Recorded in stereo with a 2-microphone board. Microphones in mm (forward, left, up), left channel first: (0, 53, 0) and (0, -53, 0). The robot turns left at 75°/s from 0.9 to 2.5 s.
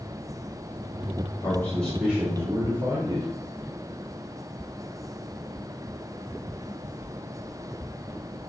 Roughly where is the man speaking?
Ahead left.